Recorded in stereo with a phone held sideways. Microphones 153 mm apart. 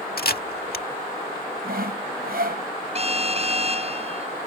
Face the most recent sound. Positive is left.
turn(degrees=-40)  # may be behind; listen again after turning